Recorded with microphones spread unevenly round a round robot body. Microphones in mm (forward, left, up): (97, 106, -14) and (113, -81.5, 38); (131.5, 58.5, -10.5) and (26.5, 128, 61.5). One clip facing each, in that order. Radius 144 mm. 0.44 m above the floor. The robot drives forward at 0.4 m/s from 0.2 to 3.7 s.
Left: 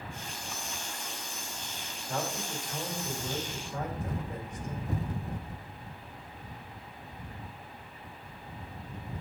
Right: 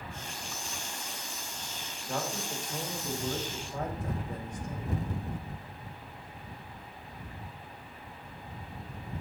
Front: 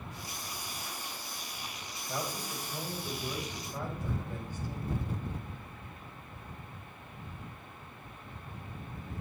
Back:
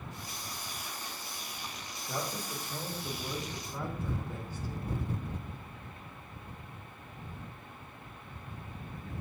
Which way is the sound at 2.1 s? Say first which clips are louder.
Even, even; 160° right.